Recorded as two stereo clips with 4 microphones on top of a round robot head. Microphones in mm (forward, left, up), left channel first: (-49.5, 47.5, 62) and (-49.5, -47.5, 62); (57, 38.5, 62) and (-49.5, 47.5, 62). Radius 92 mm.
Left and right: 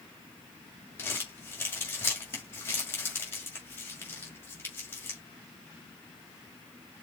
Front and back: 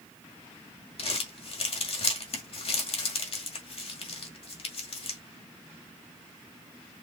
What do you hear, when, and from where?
1.0 s crumpling: 20° left, 1.9 m